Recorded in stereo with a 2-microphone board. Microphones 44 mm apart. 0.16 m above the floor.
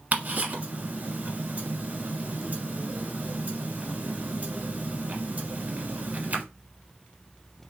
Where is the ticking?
40° right (ahead or behind), 0.9 m.